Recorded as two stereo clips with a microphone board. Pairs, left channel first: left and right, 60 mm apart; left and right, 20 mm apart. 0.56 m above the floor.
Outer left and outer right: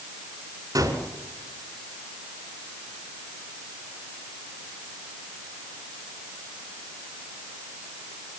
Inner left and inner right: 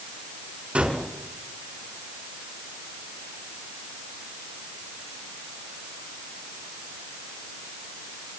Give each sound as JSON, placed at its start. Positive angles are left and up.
{"t": 0.8, "sound": "a gunshot", "side_deg": -80, "distance_m": 5.0}